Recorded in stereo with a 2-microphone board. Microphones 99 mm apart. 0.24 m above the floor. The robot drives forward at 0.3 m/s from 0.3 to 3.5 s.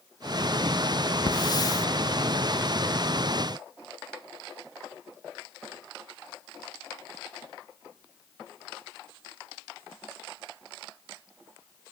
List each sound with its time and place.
1.3 s a hiss: 50° left (ahead or behind), 0.5 m; by 1.9 s 35° left (ahead or behind), 0.7 m